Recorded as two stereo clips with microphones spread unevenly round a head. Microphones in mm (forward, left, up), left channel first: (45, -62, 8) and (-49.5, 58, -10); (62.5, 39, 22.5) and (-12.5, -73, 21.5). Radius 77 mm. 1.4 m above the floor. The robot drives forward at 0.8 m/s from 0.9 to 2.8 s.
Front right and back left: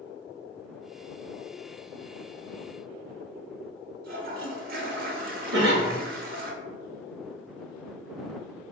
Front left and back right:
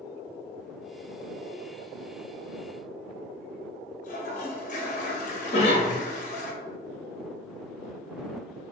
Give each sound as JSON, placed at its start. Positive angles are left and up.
{"t": 4.0, "sound": "a toilet flushing", "azimuth_deg": 95, "distance_m": 0.6}
{"t": 5.5, "sound": "a cough", "azimuth_deg": 110, "distance_m": 0.9}